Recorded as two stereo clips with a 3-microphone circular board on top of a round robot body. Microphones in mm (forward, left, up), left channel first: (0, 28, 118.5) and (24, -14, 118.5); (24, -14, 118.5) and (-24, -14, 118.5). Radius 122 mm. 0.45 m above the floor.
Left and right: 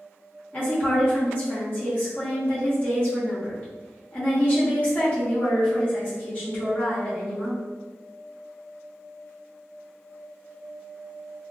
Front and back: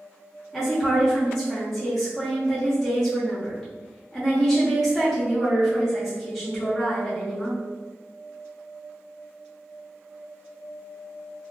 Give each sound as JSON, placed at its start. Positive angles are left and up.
{"t": 0.5, "sound": "a woman speaking", "azimuth_deg": 85, "distance_m": 1.3}